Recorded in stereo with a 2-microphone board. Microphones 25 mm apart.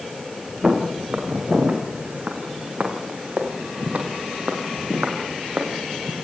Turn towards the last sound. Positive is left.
turn(degrees=-70)  # may be behind; listen again after turning